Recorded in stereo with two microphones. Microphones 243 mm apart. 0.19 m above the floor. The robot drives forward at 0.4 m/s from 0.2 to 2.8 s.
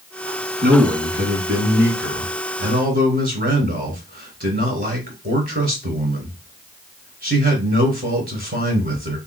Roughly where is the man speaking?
Right.